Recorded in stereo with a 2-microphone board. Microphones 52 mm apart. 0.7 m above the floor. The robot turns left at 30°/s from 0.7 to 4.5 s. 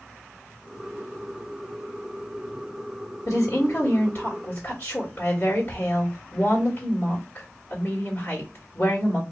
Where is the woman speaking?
95° left, 1.6 m; by 9.2 s 55° left, 1.6 m.